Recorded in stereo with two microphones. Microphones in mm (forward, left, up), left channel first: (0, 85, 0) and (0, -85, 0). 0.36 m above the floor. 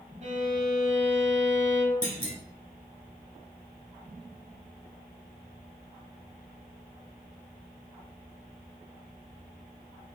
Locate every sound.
0.2 s a violin: 45° right (ahead or behind), 1.0 m
2.0 s a clunk: 45° left (ahead or behind), 1.0 m